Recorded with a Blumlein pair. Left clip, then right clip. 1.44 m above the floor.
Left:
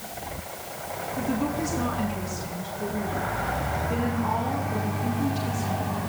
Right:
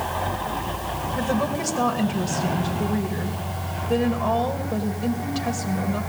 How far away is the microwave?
I don't hear a microwave.